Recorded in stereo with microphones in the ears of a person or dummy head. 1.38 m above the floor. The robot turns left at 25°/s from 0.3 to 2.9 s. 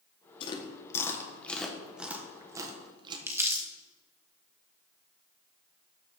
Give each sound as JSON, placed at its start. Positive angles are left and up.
{"t": 0.4, "sound": "chewing", "side_deg": 30, "distance_m": 1.3}
{"t": 3.3, "sound": "crumpling", "side_deg": -15, "distance_m": 1.3}